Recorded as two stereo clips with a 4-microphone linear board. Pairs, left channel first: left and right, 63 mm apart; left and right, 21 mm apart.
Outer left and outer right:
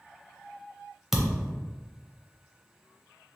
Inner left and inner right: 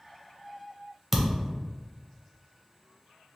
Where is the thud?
5° right (ahead or behind), 0.6 m.